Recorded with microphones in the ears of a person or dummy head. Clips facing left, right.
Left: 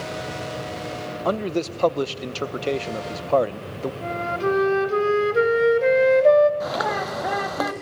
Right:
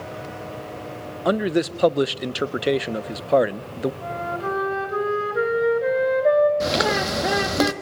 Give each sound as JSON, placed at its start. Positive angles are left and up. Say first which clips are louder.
{"t": 1.2, "sound": "a man speaking", "louder": "right 4 dB", "side_deg": -15, "distance_m": 0.6}
{"t": 4.0, "sound": "a flute", "louder": "left 3 dB", "side_deg": 40, "distance_m": 1.7}
{"t": 6.6, "sound": "a bird", "louder": "right 3 dB", "side_deg": -35, "distance_m": 1.3}